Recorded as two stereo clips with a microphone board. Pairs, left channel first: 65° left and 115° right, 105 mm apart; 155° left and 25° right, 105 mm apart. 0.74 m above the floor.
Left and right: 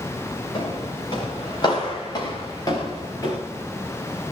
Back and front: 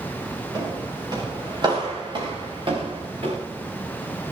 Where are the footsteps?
30° left, 6.5 m; by 3.4 s 10° left, 5 m.